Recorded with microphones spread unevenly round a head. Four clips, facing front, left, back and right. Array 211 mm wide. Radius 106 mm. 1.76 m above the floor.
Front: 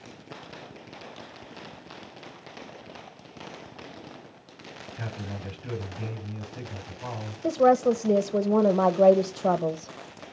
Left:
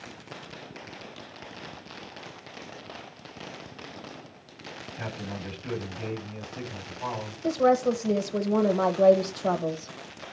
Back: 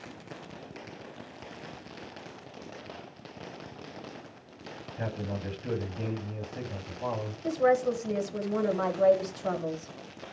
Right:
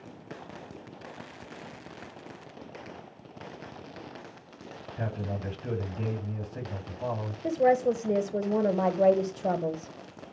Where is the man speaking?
105° right, 6.5 m.